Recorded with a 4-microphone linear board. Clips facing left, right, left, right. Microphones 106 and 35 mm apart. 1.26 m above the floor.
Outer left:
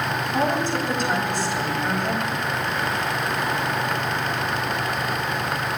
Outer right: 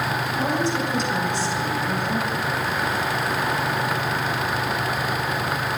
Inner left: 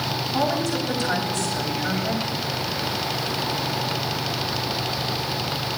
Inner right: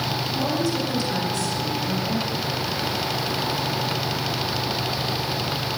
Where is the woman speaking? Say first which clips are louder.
Outer left 2 dB, inner left 2 dB; 55° left (ahead or behind), 7.5 m.